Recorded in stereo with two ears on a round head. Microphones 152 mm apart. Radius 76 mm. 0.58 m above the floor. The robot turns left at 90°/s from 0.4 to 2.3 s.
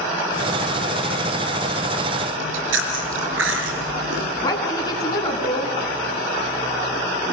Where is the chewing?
85° right, 4.5 m.